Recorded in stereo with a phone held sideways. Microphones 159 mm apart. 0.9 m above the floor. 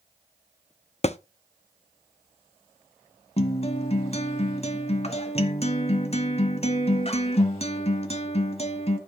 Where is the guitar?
40° left (ahead or behind), 1.3 m.